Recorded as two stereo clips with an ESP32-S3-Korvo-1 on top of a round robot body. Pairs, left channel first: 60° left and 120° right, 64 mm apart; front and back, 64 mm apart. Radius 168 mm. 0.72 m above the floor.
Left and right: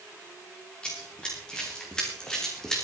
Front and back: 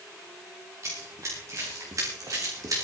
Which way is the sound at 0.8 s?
135° left.